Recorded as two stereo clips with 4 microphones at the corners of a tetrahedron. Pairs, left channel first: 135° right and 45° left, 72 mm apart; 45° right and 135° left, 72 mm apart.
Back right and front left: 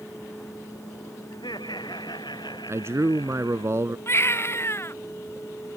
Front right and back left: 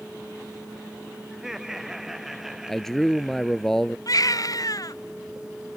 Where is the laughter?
140° right; by 3.7 s 135° right.